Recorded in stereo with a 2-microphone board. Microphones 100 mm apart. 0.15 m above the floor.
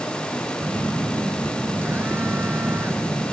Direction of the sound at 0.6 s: 25° right (ahead or behind).